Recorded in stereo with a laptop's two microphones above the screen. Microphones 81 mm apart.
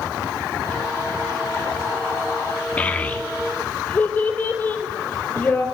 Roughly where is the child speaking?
Centre.